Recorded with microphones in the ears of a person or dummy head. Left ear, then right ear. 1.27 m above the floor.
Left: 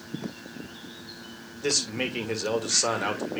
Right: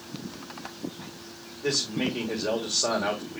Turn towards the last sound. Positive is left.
turn(degrees=65)  # may be behind; listen again after turning